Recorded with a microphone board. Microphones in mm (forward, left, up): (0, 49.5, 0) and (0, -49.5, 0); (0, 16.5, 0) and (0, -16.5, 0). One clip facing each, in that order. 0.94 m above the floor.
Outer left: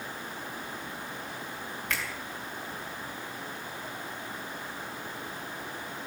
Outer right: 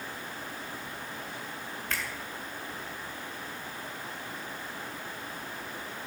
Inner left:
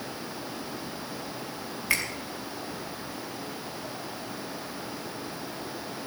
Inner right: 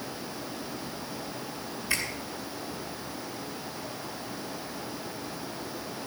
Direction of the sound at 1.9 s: 85° left.